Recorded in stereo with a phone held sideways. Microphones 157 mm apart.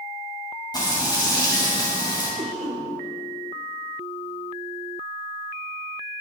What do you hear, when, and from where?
0.7 s frying: 25° left (ahead or behind), 6 m
2.4 s a cough: 50° right (ahead or behind), 2.5 m